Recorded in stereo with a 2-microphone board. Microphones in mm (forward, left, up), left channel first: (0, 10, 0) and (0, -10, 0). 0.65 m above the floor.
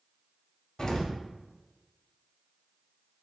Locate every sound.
0.8 s an explosion: 35° left (ahead or behind), 0.8 m